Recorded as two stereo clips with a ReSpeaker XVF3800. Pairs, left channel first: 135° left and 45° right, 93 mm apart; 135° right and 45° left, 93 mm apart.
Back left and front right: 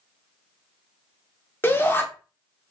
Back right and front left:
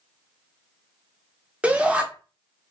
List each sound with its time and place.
1.6 s a shout: 105° left, 1.0 m